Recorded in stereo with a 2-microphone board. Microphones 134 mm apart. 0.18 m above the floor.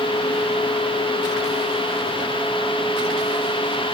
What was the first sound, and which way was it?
Only background noise.